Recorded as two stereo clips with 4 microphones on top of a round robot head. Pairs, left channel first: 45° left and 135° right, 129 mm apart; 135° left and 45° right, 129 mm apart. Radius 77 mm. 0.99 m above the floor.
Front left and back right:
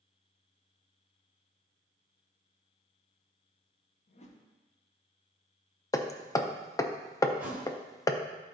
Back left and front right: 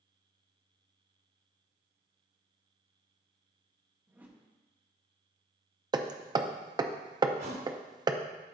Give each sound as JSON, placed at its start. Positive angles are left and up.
{"t": 4.1, "sound": "a whoosh", "azimuth_deg": 30, "distance_m": 0.8}
{"t": 5.9, "sound": "hammering", "azimuth_deg": -5, "distance_m": 0.5}
{"t": 7.4, "sound": "a thud", "azimuth_deg": -60, "distance_m": 0.8}